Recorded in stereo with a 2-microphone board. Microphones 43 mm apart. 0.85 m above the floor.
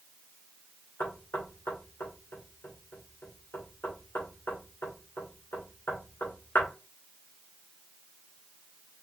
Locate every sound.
1.0 s knocking: 70° left (ahead or behind), 2 m